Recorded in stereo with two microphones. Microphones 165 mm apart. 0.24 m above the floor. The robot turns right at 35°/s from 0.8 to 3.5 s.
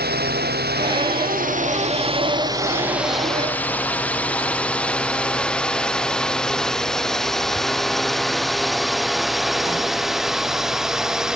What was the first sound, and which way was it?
A drone, 75° right (ahead or behind).